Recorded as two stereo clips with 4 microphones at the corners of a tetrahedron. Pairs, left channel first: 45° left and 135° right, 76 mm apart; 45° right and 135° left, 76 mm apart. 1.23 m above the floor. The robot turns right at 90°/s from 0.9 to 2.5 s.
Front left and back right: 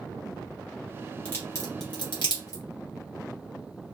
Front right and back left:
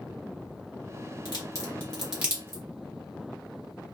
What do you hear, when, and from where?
1.2 s a crack: 25° right, 1.6 m; by 2.6 s 85° left, 1.6 m